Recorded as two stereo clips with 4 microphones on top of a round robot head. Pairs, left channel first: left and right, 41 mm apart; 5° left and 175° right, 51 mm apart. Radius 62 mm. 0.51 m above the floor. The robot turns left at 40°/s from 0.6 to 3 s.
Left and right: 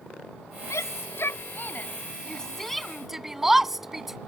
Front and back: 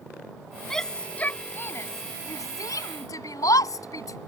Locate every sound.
0.7 s a shout: 85° left; by 4.2 s 10° right